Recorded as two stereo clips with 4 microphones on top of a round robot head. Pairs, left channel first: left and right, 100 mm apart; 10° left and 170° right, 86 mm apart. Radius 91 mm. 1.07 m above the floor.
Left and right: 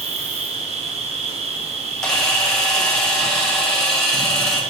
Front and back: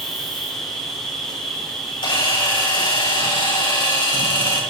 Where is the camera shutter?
5° left, 4 m.